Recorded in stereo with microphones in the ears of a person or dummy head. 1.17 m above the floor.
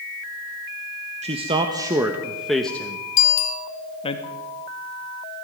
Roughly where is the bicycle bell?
Left.